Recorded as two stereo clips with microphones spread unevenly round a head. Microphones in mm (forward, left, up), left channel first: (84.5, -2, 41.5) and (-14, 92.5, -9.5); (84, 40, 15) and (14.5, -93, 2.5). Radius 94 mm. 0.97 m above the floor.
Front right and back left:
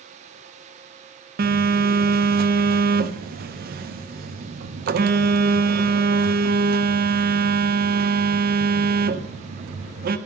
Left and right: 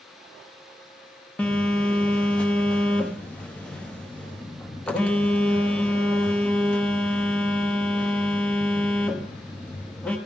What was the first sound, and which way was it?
A phone buzzing, 145° left.